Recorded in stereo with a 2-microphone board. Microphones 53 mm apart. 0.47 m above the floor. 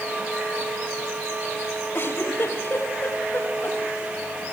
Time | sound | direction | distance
1.9 | a giggle | 45° left (ahead or behind) | 3 m